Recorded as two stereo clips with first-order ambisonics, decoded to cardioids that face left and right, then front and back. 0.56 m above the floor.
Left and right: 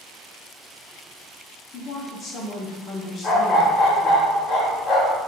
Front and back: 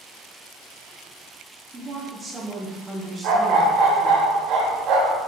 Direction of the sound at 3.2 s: 150° left.